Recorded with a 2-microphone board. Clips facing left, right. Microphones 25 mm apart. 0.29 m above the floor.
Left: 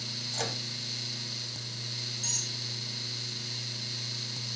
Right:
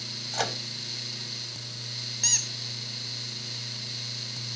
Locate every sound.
0.3 s a microwave: 35° right (ahead or behind), 1.0 m
2.2 s a squeak: 65° right (ahead or behind), 0.9 m